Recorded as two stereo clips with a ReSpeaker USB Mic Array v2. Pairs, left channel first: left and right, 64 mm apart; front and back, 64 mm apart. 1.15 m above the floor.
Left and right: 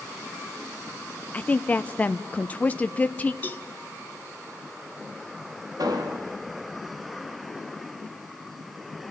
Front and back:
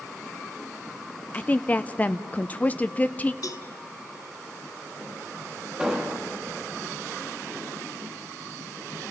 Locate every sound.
1.3 s a woman speaking: 45° left, 0.6 m
3.4 s a cowbell: 30° left, 1.3 m
5.8 s an explosion: 100° right, 1.8 m